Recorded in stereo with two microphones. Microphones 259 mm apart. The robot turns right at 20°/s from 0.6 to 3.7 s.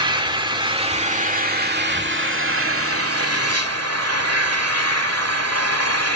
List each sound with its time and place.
0.0 s an engine running: 160° right, 1.8 m; by 6.2 s 100° right, 1.8 m